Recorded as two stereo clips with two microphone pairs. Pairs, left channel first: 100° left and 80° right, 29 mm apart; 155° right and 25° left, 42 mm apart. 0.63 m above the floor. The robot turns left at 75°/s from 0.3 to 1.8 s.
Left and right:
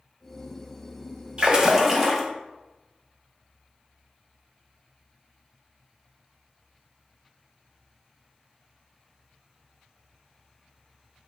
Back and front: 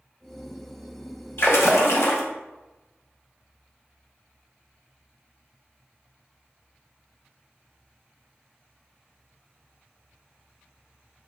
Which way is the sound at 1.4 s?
130° right.